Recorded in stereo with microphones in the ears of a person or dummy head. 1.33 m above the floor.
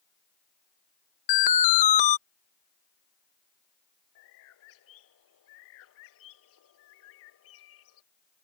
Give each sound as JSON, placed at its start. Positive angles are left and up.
{"t": 1.3, "sound": "an alarm", "side_deg": 50}
{"t": 4.2, "sound": "a bird", "side_deg": 85}